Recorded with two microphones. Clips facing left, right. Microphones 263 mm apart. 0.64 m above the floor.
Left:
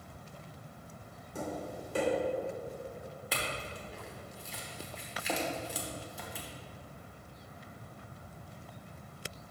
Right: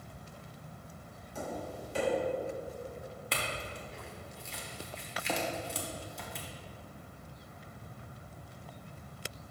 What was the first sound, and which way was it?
Tapping, 55° left (ahead or behind).